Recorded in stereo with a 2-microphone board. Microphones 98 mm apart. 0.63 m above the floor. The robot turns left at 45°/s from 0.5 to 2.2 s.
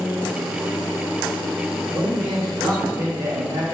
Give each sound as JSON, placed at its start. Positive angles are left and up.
{"t": 1.9, "sound": "a man speaking", "side_deg": -50, "distance_m": 1.6}